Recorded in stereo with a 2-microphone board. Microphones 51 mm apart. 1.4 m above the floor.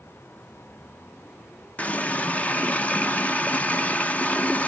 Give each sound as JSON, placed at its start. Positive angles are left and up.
{"t": 1.8, "sound": "a running tap", "side_deg": 30, "distance_m": 0.7}